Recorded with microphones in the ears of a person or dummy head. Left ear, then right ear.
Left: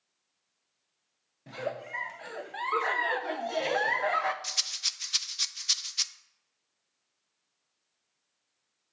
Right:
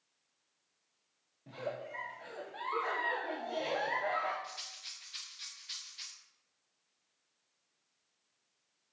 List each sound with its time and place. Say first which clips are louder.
1.5 s a giggle: left 5 dB; 50° left (ahead or behind), 0.6 m
4.4 s a rattle: left 14 dB; 50° left (ahead or behind), 0.5 m